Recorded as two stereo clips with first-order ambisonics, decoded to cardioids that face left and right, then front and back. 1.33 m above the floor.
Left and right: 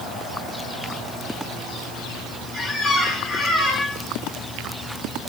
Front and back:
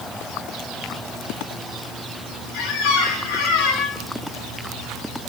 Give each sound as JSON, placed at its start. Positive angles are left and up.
{"t": 2.5, "sound": "a squeak", "azimuth_deg": 25, "distance_m": 8.5}